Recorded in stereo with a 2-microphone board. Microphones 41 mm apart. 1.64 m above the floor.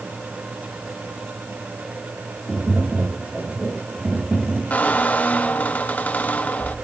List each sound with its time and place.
2.5 s tapping: 20° right (ahead or behind), 9 m
4.7 s a squeak: 40° left (ahead or behind), 1.2 m